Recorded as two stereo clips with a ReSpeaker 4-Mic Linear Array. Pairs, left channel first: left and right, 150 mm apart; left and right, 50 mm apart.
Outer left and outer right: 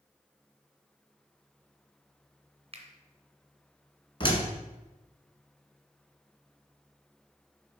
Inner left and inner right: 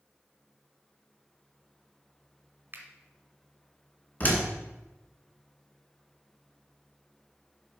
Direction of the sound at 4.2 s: 35° left (ahead or behind).